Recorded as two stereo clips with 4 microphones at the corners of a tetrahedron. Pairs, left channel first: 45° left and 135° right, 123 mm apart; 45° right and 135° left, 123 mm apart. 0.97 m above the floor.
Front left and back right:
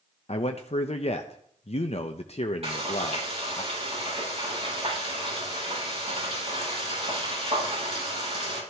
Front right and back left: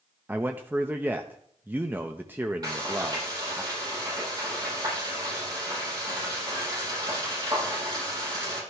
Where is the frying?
165° right, 7.5 m.